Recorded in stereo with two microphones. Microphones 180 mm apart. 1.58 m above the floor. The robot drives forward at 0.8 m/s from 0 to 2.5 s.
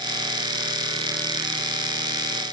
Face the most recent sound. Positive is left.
No sound to turn to.